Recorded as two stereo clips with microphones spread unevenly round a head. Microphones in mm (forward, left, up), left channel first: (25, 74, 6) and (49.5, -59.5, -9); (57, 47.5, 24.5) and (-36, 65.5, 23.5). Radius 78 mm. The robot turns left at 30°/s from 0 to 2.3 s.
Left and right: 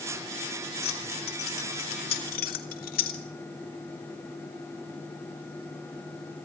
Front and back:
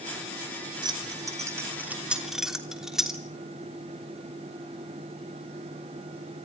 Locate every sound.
0.8 s keys jangling: 130° left, 3 m; by 3.2 s 85° left, 3 m